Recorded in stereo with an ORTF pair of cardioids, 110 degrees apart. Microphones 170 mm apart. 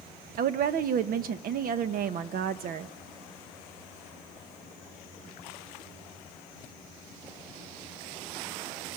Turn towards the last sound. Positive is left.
turn(degrees=-60)